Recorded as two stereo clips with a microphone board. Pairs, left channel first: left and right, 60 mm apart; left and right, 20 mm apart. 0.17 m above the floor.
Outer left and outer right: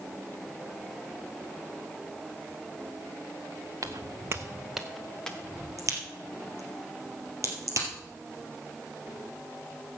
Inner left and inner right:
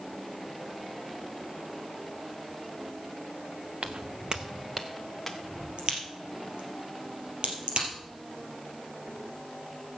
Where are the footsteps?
75° right (ahead or behind), 0.8 m; by 5.7 s 15° left (ahead or behind), 2 m.